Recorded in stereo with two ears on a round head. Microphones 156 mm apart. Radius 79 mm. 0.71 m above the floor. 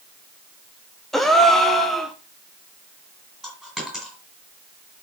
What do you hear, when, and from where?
1.1 s a gasp: centre (ahead or behind), 1.1 m
3.4 s a dropped coin: centre (ahead or behind), 4 m